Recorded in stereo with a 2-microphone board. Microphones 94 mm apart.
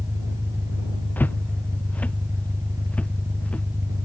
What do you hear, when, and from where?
0.0 s an engine running: 35° right (ahead or behind)
1.2 s footsteps: 20° left (ahead or behind); by 3.7 s 15° left (ahead or behind)